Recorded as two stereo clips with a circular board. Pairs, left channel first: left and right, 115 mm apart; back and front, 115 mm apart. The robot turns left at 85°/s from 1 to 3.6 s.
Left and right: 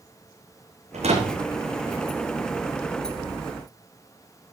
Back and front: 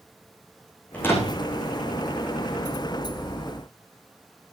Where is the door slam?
105° right, 6.5 m; by 1.4 s 140° right, 6.5 m.